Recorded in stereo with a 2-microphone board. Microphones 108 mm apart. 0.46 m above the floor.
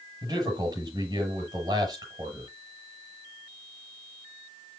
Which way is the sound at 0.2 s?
35° right (ahead or behind).